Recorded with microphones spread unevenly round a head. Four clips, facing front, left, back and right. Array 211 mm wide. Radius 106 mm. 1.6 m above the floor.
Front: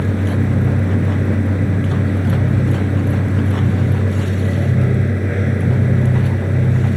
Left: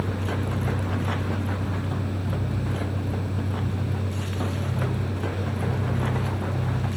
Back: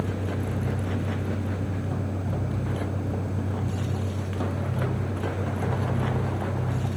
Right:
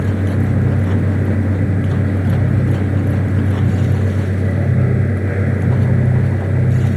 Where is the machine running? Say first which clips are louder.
Right 9 dB, front 10 dB; 40° right.